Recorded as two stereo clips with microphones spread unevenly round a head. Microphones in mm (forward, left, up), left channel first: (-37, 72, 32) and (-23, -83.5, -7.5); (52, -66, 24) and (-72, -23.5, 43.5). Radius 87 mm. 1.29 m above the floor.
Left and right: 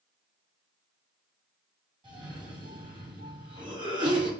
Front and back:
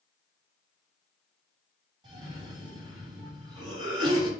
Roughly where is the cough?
Behind right.